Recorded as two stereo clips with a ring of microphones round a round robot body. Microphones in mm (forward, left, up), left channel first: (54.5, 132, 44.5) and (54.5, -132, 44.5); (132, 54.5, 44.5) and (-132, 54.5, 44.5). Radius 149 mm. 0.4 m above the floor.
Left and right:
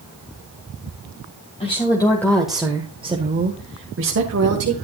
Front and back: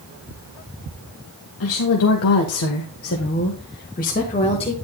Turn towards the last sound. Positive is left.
turn(degrees=-70)